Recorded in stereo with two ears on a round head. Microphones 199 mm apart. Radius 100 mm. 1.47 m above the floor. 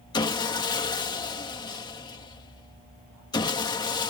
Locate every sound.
0.1 s sawing: 20° left (ahead or behind)